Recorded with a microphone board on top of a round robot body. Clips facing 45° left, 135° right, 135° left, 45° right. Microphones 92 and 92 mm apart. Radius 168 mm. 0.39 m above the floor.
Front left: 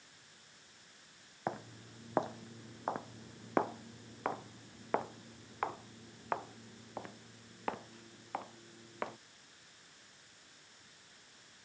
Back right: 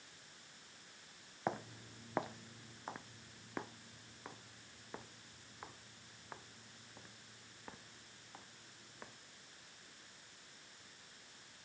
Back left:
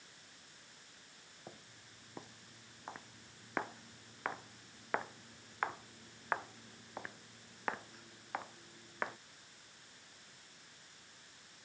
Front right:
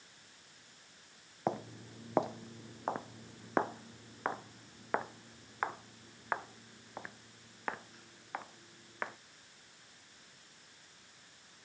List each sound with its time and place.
1.5 s footsteps: 40° right; by 9.2 s 45° left